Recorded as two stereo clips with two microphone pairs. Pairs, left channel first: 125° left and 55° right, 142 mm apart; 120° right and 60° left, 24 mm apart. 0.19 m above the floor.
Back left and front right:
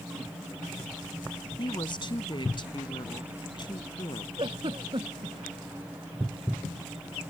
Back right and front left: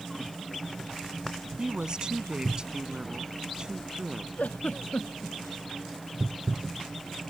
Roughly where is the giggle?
Right.